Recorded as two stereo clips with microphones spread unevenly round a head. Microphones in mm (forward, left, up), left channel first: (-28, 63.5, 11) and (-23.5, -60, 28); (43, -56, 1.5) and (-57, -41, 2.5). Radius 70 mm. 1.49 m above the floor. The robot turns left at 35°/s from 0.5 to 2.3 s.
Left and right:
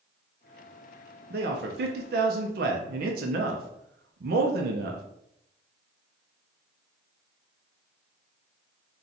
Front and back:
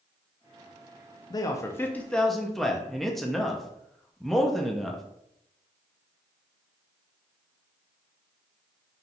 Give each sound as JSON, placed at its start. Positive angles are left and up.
{"t": 1.3, "sound": "a man speaking", "azimuth_deg": -60, "distance_m": 0.5}